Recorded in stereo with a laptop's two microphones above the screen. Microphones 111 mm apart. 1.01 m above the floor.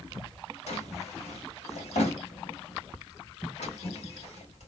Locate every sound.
0.7 s a drawer: 80° left, 2 m